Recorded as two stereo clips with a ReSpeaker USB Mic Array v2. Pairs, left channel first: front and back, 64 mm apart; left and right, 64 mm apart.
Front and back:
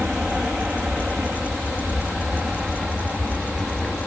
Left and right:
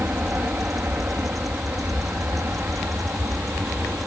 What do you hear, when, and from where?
0.0 s an aircraft: 110° right; by 4.1 s 105° right